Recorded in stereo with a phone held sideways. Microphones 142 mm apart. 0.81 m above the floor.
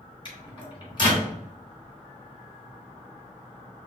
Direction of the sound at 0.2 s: 35° left (ahead or behind).